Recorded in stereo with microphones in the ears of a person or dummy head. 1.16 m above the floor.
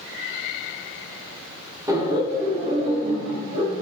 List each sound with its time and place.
1.9 s laughter: 20° right (ahead or behind), 1.3 m; by 3.8 s 45° right (ahead or behind), 2.5 m